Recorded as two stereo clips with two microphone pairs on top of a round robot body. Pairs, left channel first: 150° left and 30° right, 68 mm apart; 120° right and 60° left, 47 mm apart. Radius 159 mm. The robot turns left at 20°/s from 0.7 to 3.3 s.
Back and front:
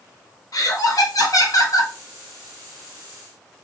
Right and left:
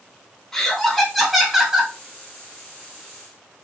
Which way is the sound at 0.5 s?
155° left.